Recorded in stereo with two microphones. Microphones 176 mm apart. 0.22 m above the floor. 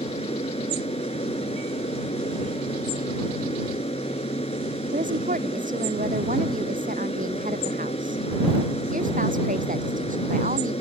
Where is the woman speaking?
50° right (ahead or behind).